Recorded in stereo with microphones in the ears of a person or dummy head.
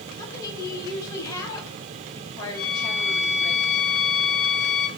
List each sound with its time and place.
0.2 s a woman speaking: 15° left (ahead or behind), 2 m
2.5 s a violin: 15° left (ahead or behind), 4 m